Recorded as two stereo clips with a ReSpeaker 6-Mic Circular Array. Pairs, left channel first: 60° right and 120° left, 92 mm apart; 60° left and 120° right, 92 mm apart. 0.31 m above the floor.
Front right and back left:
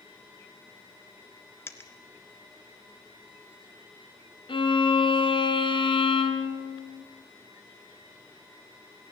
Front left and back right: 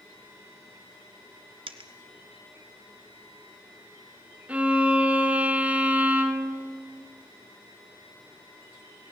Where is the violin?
45° right, 1.9 m.